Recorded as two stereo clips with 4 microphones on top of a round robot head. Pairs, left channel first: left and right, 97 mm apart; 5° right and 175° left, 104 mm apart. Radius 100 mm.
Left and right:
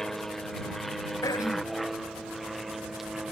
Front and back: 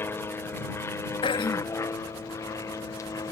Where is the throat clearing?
30° left.